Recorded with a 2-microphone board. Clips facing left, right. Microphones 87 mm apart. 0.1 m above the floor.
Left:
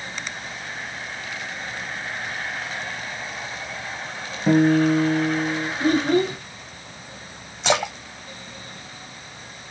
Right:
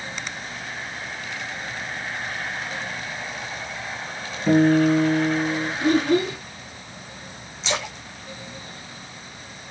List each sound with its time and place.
4.5 s a guitar: 30° left (ahead or behind), 2 m
5.8 s a child speaking: 25° left (ahead or behind), 1.3 m
7.6 s a splash: 60° left (ahead or behind), 1.2 m